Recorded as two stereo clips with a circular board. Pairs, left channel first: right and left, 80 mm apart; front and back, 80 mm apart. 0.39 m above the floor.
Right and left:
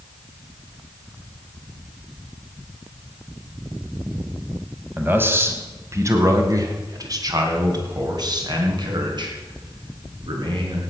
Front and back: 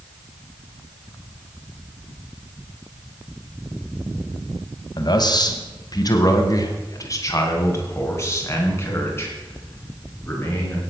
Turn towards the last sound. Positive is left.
turn(degrees=65)